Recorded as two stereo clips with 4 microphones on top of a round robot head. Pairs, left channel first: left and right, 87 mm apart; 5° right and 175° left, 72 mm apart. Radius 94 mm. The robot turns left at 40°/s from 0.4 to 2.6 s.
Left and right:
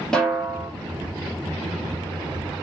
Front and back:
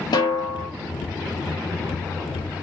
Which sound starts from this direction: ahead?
A snare drum, at 0.1 s.